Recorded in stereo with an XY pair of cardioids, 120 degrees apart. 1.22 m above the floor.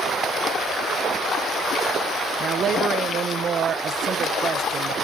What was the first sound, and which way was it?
A woman speaking, 50° right.